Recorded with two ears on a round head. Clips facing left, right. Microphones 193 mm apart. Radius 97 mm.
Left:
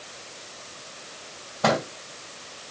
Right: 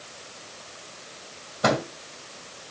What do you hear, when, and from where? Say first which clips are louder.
1.6 s a microwave: even; 15° right (ahead or behind), 4.5 m